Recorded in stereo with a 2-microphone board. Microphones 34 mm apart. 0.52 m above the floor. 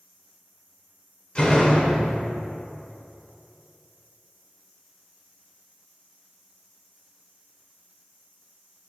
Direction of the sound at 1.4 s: 25° left (ahead or behind).